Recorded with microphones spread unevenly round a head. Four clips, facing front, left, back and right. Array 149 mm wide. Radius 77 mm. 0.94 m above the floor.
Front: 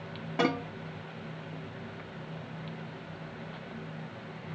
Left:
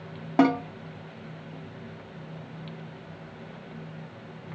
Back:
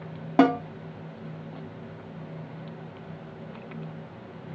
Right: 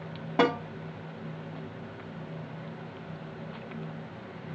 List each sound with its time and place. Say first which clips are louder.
0.4 s a snare drum: left 4 dB, back 9 dB; 150° left, 3 m